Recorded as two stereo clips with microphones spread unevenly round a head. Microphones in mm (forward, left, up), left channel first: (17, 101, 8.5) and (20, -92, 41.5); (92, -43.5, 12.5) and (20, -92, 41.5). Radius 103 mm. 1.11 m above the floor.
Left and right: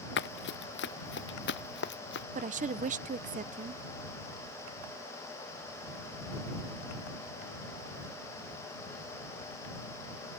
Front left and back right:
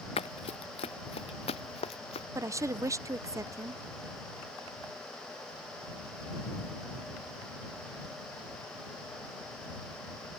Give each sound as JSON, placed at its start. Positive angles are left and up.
{"t": 0.2, "sound": "running footsteps", "azimuth_deg": 60}
{"t": 2.4, "sound": "a woman speaking", "azimuth_deg": -95}